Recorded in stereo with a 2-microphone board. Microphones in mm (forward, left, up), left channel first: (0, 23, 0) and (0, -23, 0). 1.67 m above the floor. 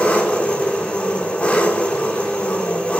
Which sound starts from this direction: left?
An engine running, at 0.0 s.